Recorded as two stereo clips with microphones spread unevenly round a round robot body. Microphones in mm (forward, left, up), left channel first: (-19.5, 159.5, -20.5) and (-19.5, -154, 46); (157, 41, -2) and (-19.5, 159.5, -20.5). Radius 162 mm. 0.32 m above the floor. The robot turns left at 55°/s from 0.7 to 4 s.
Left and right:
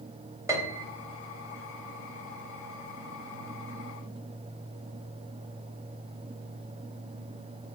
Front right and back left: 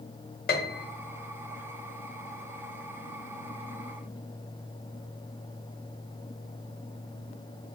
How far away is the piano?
About 0.5 m.